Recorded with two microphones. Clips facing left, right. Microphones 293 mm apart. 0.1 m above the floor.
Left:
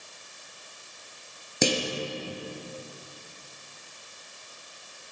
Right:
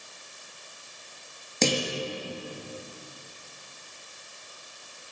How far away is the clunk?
About 2 m.